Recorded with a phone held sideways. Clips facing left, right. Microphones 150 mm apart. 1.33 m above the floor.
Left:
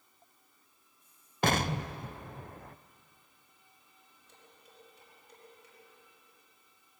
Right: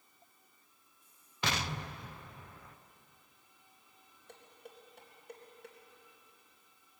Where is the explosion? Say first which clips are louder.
Left 8 dB; 50° left (ahead or behind), 0.5 m.